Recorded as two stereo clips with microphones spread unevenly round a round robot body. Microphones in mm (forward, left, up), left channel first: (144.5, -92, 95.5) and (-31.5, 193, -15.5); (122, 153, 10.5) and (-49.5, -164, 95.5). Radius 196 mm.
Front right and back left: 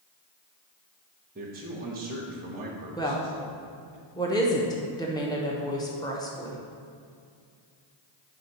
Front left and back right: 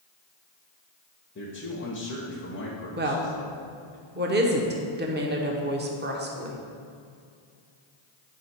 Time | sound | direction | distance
1.4 | a man speaking | 90° left | 1.2 m
3.0 | a woman speaking | 170° right | 1.1 m